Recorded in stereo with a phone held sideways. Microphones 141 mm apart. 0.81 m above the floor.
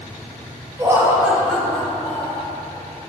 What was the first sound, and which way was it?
Laughter, 20° right (ahead or behind).